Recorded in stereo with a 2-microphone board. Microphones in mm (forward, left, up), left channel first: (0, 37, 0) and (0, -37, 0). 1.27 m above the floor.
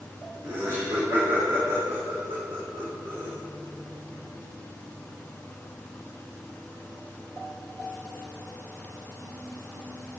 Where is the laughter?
60° right (ahead or behind), 3.5 m.